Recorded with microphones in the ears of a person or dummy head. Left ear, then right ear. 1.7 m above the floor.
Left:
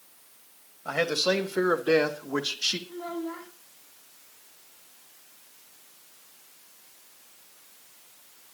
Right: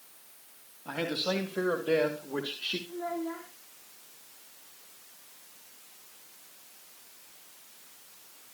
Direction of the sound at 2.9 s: 80° left.